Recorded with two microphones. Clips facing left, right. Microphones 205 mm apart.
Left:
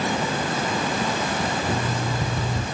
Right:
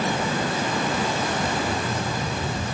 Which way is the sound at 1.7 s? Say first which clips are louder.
Left 1 dB; 40° left (ahead or behind).